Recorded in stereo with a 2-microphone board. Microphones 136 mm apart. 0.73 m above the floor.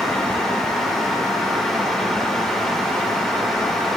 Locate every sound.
Only background noise.